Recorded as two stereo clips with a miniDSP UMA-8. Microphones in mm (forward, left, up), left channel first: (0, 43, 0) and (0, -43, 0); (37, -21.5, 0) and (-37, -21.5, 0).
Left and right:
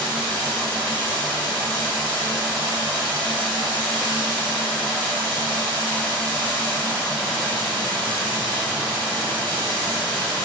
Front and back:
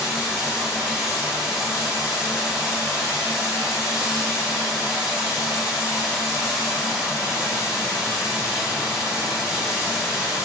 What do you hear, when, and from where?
0.0 s running water: 100° right, 2 m